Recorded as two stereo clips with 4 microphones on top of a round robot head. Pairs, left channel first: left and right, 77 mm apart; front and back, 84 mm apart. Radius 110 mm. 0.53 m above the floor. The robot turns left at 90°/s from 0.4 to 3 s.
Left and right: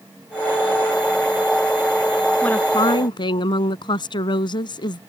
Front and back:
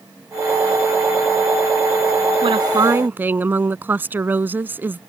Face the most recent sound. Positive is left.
turn(degrees=115)